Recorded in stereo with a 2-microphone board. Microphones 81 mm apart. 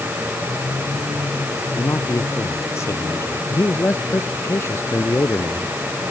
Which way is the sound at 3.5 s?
35° left (ahead or behind).